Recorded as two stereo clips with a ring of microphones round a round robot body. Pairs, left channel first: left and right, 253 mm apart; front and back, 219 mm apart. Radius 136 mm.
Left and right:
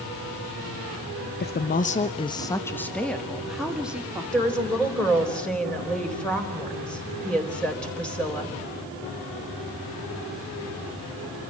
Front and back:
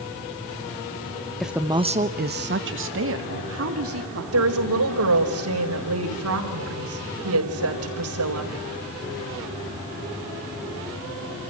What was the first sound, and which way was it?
A woman speaking, 90° left.